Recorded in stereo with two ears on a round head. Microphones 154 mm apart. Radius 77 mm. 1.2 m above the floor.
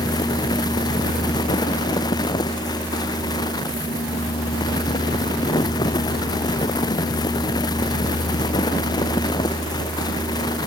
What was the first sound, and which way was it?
Only background noise.